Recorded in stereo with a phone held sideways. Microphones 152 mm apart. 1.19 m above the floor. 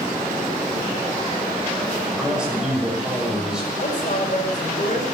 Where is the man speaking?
5° right (ahead or behind), 6.5 m.